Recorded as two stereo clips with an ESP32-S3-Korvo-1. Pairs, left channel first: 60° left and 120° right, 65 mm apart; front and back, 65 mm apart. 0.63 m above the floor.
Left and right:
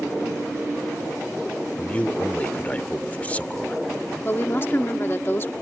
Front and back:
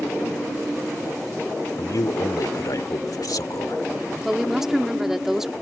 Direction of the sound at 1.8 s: 5° right.